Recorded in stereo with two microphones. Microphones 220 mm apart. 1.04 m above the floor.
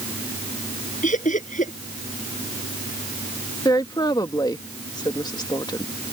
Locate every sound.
1.0 s laughter: 35° left (ahead or behind)
3.6 s a woman speaking: 20° left (ahead or behind)